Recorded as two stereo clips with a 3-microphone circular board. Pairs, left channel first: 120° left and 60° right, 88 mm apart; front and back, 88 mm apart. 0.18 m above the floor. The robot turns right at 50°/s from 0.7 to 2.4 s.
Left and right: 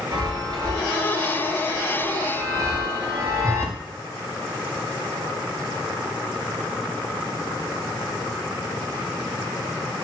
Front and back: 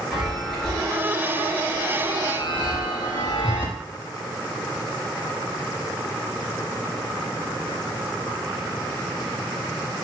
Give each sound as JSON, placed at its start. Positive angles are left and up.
{"t": 0.1, "sound": "a chime", "azimuth_deg": -95, "distance_m": 3.5}